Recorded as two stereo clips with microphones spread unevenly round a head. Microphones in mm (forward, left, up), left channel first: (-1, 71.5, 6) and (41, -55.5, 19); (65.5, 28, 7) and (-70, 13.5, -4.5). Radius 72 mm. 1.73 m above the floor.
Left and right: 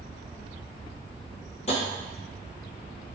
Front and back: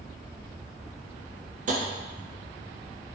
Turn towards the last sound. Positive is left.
turn(degrees=160)